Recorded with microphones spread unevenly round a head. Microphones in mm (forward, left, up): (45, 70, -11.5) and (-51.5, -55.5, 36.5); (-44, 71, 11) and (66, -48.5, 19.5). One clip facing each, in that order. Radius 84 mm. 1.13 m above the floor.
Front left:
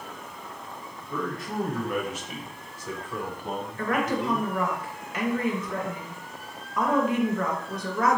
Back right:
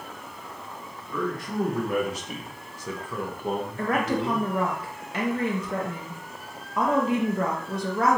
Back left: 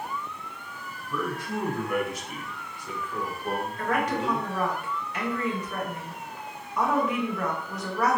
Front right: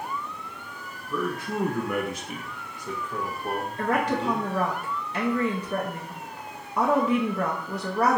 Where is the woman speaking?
65° right, 0.5 m.